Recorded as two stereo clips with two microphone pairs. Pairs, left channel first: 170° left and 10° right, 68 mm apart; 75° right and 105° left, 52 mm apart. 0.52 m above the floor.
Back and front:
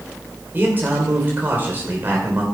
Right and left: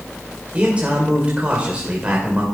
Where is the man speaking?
45° left, 2.5 m.